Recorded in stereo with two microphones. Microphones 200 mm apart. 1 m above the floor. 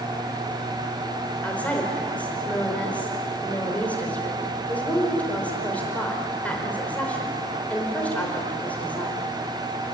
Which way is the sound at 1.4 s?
5° left (ahead or behind).